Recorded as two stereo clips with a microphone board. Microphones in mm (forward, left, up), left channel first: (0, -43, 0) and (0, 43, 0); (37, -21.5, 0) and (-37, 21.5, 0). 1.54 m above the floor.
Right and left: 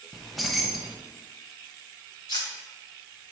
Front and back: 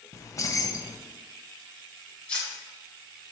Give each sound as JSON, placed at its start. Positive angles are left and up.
{"t": 0.1, "sound": "keys jangling", "azimuth_deg": 0, "distance_m": 0.6}
{"t": 2.3, "sound": "cutlery clinking", "azimuth_deg": -105, "distance_m": 1.4}